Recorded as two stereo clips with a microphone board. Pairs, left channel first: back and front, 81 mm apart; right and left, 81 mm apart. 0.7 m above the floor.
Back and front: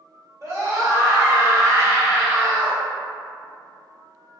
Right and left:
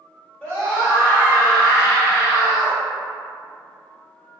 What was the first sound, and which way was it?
A scream, 15° right.